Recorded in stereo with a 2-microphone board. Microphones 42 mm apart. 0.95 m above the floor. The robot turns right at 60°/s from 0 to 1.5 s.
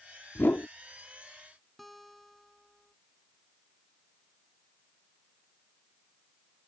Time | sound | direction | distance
0.3 | a whoosh | 65° left (ahead or behind) | ?
1.8 | a guitar | centre (ahead or behind) | ?